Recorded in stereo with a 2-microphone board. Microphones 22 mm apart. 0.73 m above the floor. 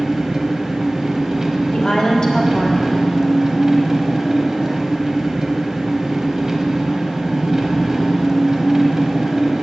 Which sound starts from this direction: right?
An engine running, at 0.0 s.